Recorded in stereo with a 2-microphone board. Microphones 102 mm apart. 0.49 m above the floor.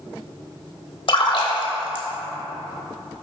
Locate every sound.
1.1 s a splash: 55° left (ahead or behind), 0.8 m